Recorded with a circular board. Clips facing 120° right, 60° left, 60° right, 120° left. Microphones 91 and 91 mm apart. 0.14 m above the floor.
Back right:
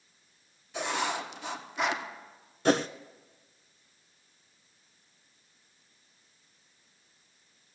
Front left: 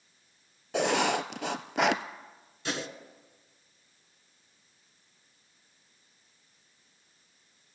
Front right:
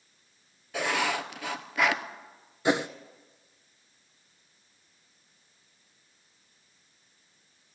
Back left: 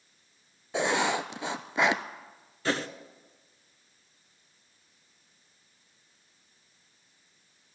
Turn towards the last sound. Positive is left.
turn(degrees=-125)